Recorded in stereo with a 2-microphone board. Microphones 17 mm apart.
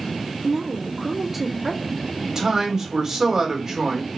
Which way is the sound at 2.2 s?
35° right (ahead or behind).